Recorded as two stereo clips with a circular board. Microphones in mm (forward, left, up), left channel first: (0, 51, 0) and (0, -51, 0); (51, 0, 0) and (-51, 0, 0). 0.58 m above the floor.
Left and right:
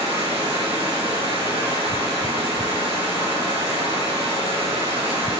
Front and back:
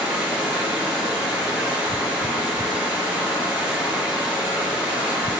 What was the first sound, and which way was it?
Running water, 105° right.